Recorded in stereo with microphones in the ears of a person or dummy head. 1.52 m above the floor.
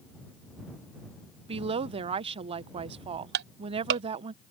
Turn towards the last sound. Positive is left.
turn(degrees=-60)  # may be behind; listen again after turning